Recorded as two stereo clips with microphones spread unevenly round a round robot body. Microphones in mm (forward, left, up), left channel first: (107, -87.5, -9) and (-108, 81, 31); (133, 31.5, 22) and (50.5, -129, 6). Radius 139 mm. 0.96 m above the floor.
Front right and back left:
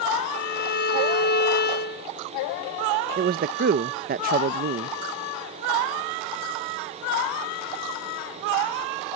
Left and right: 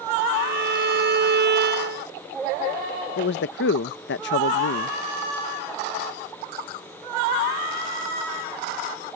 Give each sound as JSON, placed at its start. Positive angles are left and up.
{"t": 0.3, "sound": "a violin", "azimuth_deg": -95}
{"t": 3.2, "sound": "a man speaking", "azimuth_deg": 80}